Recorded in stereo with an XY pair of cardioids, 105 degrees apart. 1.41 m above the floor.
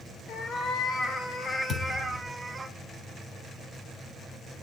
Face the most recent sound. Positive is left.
turn(degrees=35)